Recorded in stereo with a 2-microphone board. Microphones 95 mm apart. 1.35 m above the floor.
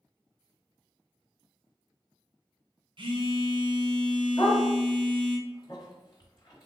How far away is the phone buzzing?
About 0.9 m.